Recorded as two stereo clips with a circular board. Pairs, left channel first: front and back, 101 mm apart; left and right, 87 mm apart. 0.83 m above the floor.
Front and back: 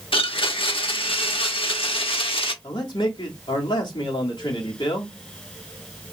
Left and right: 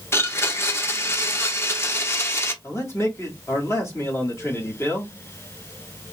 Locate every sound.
0.1 s a blender: 30° left, 0.8 m
2.6 s a man speaking: 35° left, 2.0 m